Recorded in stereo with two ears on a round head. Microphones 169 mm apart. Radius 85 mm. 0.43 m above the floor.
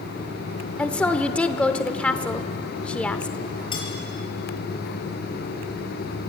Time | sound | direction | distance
0.8 | a woman speaking | 5° left (ahead or behind) | 0.8 m
3.7 | cutlery clinking | 25° left (ahead or behind) | 6 m